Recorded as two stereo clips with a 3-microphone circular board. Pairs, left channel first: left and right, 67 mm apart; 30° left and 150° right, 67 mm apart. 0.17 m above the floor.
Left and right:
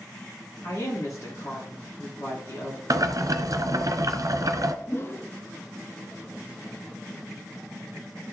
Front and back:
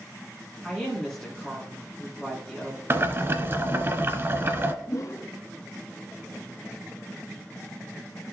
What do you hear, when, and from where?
0.6 s a woman speaking: 110° left, 3 m
2.9 s boiling: 105° right, 0.9 m
4.9 s a whoosh: 45° left, 0.7 m